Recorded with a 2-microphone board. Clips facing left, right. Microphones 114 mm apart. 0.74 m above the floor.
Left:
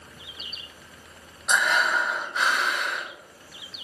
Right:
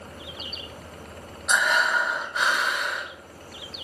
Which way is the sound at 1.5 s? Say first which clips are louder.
Even; 5° right (ahead or behind).